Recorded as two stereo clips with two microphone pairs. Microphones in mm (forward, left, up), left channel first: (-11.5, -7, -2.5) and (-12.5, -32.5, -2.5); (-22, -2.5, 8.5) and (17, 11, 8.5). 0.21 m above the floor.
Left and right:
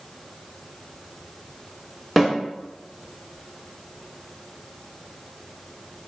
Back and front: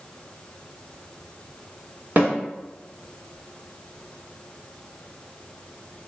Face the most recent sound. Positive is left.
turn(degrees=-5)